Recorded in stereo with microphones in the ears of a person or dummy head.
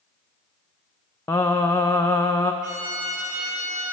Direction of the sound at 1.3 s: 15° left (ahead or behind).